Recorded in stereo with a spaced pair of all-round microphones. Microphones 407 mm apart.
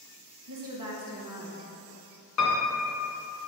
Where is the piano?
45° left (ahead or behind), 0.6 m.